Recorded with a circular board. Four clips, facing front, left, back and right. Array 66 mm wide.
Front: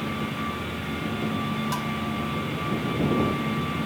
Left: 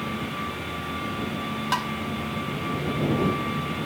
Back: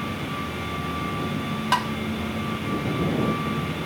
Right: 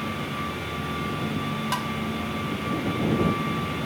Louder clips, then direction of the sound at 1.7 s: Left 4 dB, back 6 dB; 165° left.